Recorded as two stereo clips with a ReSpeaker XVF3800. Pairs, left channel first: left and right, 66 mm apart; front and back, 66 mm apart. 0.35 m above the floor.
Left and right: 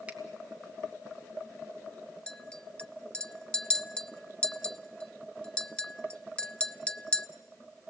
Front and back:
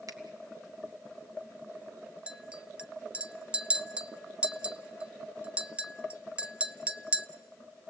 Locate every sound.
0.1 s a finger snap: 160° right, 1.9 m
2.3 s a clink: 135° left, 0.6 m